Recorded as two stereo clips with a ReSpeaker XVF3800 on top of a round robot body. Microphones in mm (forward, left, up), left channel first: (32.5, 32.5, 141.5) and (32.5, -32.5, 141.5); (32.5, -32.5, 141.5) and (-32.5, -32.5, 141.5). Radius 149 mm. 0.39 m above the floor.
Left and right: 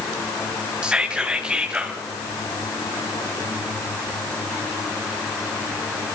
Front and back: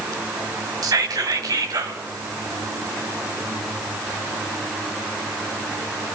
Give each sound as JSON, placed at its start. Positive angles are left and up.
{"t": 0.8, "sound": "whispering", "azimuth_deg": -165, "distance_m": 3.5}